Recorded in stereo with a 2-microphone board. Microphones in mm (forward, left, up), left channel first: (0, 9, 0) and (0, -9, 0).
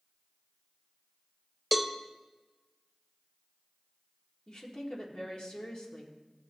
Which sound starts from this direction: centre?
A cowbell, at 1.7 s.